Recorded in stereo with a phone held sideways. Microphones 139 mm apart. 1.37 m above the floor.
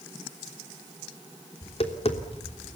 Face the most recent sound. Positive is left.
turn(degrees=50)  # may be behind; listen again after turning